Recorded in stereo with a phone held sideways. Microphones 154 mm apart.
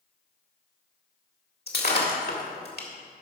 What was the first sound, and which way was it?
Breaking glass, 75° left (ahead or behind).